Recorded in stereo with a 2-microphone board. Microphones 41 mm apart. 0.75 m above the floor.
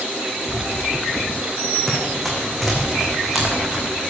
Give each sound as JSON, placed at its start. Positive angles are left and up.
{"t": 1.9, "sound": "running footsteps", "side_deg": 10, "distance_m": 3.0}